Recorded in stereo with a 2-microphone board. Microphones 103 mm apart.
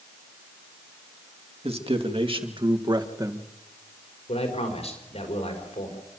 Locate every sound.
1.6 s a man speaking: 65° right (ahead or behind), 2.5 m; by 3.5 s 25° right (ahead or behind), 1.5 m
4.3 s a man speaking: 75° left (ahead or behind), 5 m